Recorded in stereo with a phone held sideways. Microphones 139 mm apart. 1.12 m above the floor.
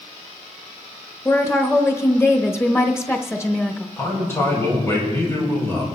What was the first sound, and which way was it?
A woman speaking, 20° left (ahead or behind).